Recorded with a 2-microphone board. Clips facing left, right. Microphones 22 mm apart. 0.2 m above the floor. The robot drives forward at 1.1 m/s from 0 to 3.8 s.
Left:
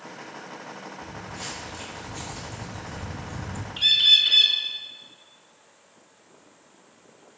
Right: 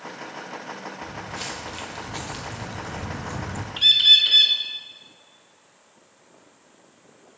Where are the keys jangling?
I don't hear keys jangling.